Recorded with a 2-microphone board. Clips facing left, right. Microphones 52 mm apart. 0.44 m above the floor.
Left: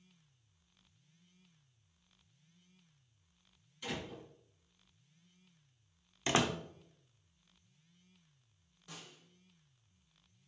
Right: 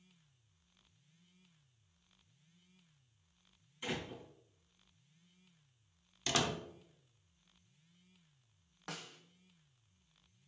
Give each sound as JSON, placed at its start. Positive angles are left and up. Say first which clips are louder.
{"t": 3.8, "sound": "a door slam", "louder": "right 1 dB", "side_deg": -20, "distance_m": 3.5}
{"t": 6.3, "sound": "a door slam", "louder": "left 3 dB", "side_deg": 25, "distance_m": 0.6}
{"t": 8.9, "sound": "a snare drum", "louder": "right 5 dB", "side_deg": -85, "distance_m": 0.7}